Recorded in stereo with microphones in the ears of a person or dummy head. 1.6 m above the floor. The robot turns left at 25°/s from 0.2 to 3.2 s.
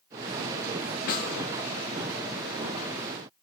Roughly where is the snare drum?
Left.